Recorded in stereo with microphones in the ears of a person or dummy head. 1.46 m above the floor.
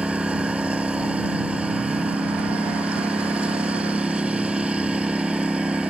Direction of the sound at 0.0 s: 5° right (ahead or behind).